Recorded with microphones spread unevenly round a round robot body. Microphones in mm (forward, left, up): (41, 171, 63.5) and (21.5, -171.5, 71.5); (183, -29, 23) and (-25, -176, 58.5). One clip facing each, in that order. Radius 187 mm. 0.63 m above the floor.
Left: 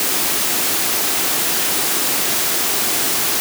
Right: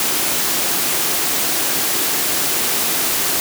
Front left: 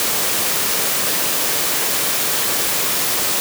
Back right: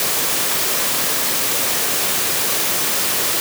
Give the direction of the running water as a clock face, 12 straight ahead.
I don't hear running water.